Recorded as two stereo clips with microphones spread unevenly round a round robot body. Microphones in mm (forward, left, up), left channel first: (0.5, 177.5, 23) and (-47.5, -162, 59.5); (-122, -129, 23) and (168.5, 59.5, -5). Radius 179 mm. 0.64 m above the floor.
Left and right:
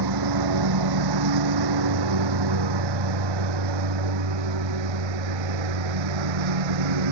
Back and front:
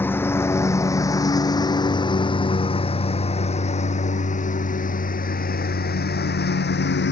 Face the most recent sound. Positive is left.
turn(degrees=-85)